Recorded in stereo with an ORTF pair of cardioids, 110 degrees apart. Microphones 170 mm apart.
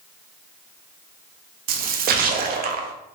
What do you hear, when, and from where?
1.7 s a splash: 60° right, 0.5 m